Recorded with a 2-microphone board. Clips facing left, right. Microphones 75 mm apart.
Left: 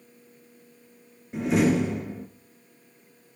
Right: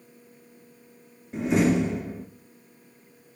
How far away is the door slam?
About 1.7 m.